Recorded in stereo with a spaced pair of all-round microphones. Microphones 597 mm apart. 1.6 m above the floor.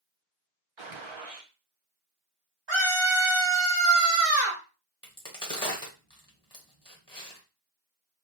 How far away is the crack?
About 1.1 m.